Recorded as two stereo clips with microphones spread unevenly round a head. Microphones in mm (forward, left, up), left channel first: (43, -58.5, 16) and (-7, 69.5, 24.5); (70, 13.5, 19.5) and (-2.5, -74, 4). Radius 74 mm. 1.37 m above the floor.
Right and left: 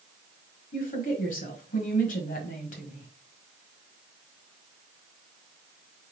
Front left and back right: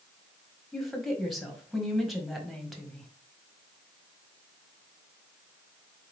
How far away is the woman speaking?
About 1.5 m.